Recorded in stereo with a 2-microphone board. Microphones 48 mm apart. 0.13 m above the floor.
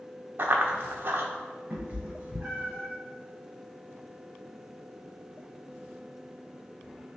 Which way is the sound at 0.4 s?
50° right (ahead or behind).